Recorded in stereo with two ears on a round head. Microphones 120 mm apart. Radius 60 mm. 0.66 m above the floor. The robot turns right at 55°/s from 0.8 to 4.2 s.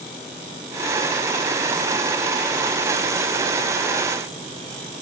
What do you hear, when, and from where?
Only background noise.